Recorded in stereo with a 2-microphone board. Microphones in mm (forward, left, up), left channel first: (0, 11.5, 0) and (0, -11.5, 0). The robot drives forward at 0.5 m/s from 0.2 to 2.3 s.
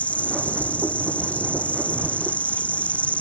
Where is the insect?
80° left; by 3.2 s 85° left.